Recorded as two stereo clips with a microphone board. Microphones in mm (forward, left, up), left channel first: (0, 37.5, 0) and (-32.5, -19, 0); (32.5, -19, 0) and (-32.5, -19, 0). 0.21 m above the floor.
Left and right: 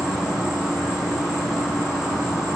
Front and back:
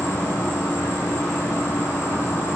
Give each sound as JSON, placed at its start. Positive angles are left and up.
{"t": 0.0, "sound": "an insect", "azimuth_deg": -35, "distance_m": 1.0}